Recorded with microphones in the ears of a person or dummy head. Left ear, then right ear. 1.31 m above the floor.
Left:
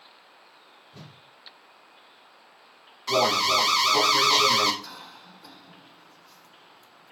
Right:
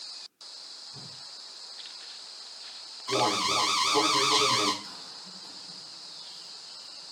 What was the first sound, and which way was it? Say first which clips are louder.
A whoosh: right 5 dB; 80° left.